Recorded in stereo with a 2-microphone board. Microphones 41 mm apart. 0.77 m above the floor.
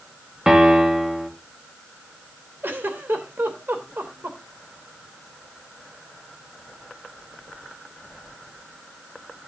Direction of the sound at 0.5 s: 15° right (ahead or behind).